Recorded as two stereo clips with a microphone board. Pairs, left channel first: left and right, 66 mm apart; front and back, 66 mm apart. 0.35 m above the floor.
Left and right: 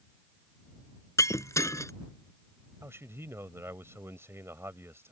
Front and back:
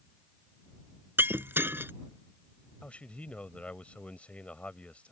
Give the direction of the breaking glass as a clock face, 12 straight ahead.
8 o'clock.